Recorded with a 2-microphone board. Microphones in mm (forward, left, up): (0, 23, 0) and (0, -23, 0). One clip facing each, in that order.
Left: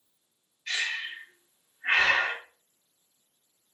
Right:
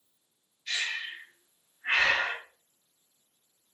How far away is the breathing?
About 1.0 m.